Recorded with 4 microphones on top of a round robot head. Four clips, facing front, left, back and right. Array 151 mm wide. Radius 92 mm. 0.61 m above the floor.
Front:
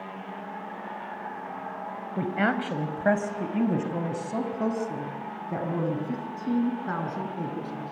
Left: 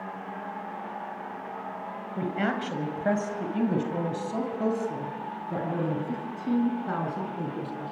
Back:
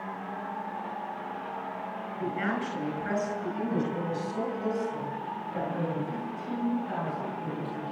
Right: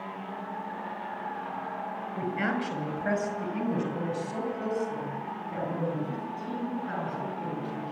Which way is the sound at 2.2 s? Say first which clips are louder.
Left 2 dB, front 5 dB; 15° left.